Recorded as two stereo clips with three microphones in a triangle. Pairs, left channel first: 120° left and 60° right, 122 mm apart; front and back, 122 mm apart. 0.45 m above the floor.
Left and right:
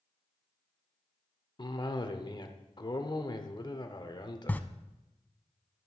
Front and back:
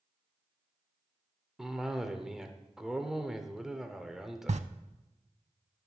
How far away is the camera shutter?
About 0.5 m.